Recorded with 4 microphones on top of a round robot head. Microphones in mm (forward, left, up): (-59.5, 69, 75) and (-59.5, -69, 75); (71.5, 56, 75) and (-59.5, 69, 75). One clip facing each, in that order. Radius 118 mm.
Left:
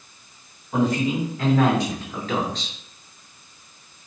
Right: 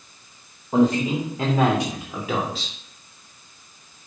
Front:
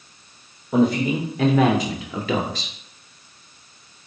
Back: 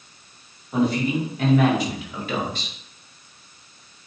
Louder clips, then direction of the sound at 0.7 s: Right 3 dB, front 3 dB; 25° right.